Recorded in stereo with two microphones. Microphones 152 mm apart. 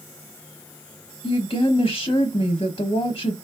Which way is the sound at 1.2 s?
35° left (ahead or behind).